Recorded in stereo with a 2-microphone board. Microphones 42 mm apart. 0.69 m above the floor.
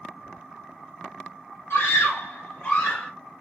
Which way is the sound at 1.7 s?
60° left (ahead or behind).